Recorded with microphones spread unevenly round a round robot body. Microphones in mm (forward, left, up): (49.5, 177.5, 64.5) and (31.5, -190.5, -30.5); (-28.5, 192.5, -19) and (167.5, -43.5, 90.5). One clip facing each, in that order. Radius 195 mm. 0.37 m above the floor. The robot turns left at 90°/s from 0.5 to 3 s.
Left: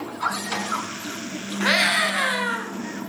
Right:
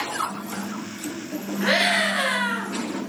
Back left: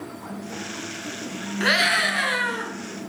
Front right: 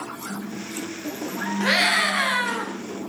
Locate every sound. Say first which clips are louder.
1.6 s a scream: right 1 dB, back left 1 dB; 65° left, 4.5 m; by 2.7 s 35° right, 4.5 m